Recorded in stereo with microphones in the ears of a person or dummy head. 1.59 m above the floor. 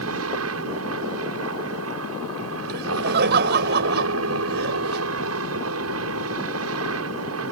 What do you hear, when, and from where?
0.0 s a helicopter: 75° right (ahead or behind)
2.7 s laughter: 50° right (ahead or behind)